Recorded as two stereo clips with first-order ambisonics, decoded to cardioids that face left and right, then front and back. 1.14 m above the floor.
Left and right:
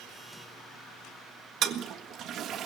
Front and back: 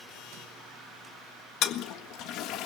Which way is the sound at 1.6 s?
40° right.